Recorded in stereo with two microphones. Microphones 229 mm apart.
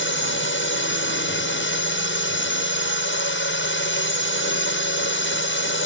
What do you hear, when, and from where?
0.0 s a drone: 60° left (ahead or behind)